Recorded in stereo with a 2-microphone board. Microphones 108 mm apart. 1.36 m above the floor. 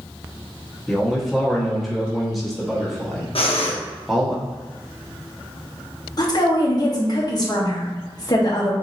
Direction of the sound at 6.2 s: 40° left (ahead or behind).